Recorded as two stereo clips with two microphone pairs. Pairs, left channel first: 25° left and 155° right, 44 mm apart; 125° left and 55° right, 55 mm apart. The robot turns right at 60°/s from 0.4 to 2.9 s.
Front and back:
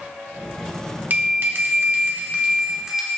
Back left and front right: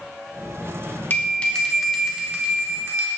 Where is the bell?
170° left, 1.8 m; by 3.1 s 85° right, 1.8 m.